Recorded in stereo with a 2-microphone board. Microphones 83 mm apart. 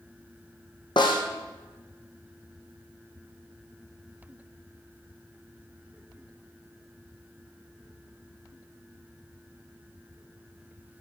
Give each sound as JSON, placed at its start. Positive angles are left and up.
{"t": 1.0, "sound": "a snare drum", "side_deg": 70, "distance_m": 2.0}